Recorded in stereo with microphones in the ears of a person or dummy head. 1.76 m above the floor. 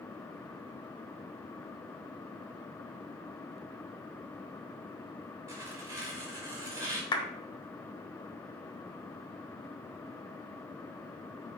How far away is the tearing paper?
About 2 m.